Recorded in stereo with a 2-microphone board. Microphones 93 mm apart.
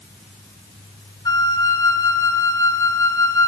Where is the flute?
45° left (ahead or behind), 2.5 m.